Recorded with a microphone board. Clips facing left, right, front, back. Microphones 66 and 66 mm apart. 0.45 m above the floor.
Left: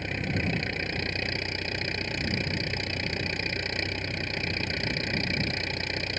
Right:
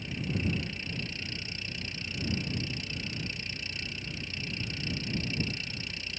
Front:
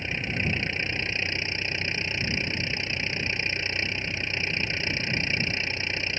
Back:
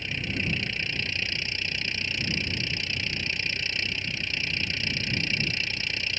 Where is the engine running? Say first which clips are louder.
Left 3 dB, front 2 dB; 65° left.